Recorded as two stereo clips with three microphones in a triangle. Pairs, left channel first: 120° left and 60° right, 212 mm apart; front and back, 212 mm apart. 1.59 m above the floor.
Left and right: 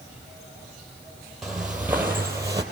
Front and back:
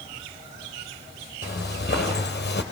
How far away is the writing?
No writing in this recording.